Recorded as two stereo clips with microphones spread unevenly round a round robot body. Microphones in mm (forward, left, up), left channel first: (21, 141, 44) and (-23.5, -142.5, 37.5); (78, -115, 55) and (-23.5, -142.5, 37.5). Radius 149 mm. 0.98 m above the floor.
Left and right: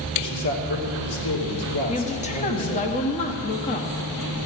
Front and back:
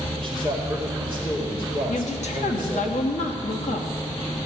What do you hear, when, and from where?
0.1 s a man speaking: 65° left, 2.5 m
1.9 s a woman speaking: 15° left, 1.2 m